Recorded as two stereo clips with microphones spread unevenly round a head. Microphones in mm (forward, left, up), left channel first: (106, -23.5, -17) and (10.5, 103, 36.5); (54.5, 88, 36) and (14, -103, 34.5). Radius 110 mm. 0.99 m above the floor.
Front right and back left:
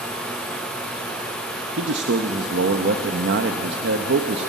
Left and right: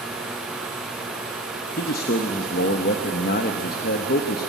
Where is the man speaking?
125° left, 0.8 m.